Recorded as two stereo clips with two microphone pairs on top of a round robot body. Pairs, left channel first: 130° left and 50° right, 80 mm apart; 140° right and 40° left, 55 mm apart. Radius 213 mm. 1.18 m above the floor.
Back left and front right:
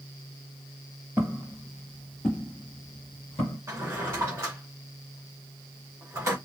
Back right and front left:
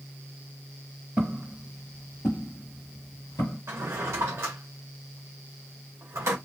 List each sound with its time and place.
1.2 s footsteps: 5° right, 1.2 m; by 3.6 s 155° right, 1.4 m
3.7 s a drawer: 5° left, 0.6 m